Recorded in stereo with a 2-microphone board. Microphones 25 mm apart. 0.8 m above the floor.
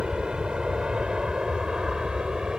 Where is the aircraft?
40° right (ahead or behind); by 2.6 s 35° right (ahead or behind).